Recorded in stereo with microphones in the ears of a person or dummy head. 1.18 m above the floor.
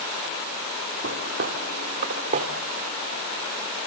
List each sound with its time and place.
1.0 s footsteps: 60° right (ahead or behind), 3 m; by 2.5 s 45° right (ahead or behind), 1.6 m